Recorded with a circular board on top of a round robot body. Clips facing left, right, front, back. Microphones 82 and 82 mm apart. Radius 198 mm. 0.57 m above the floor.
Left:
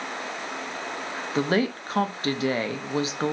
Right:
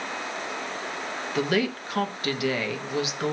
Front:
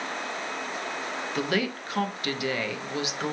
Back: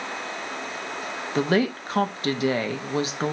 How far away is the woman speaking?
About 1.0 m.